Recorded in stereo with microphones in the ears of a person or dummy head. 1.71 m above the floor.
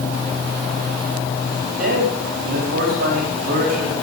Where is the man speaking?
60° right (ahead or behind), 5 m.